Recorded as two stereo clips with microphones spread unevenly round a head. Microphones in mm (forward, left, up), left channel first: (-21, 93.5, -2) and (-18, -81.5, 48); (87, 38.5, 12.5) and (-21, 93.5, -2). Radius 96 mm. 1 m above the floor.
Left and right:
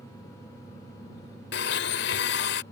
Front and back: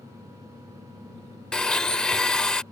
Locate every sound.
1.5 s a blender: 55° left